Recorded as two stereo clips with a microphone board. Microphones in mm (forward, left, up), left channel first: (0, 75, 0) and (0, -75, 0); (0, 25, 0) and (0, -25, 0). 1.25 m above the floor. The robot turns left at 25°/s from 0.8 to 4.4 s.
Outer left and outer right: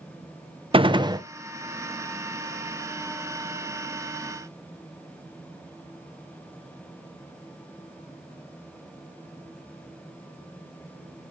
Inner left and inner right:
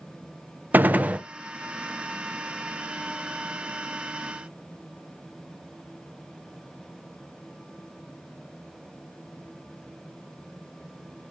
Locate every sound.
0.7 s a gunshot: 35° right (ahead or behind), 0.6 m; by 1.2 s 25° right (ahead or behind), 0.6 m